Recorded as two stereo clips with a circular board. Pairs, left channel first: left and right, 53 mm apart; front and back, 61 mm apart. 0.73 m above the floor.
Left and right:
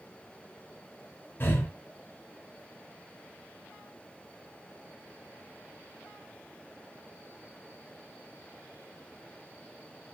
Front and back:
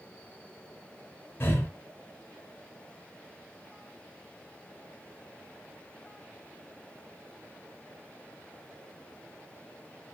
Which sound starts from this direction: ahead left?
Breathing, at 1.4 s.